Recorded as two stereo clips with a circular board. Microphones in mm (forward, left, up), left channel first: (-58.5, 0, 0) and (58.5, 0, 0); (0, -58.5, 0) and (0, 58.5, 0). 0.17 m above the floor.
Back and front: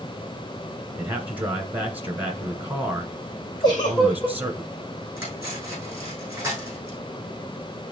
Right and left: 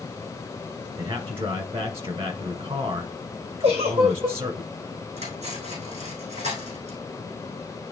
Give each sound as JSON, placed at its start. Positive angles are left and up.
{"t": 1.0, "sound": "a man speaking", "azimuth_deg": 70, "distance_m": 1.8}
{"t": 3.6, "sound": "a giggle", "azimuth_deg": 125, "distance_m": 3.5}
{"t": 5.2, "sound": "cutlery clinking", "azimuth_deg": 75, "distance_m": 4.5}